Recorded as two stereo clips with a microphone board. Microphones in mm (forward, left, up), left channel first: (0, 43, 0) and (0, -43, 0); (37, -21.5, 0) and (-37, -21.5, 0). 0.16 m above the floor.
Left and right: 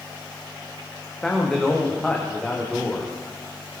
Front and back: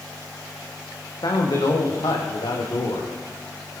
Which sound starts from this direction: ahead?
A man speaking, at 1.2 s.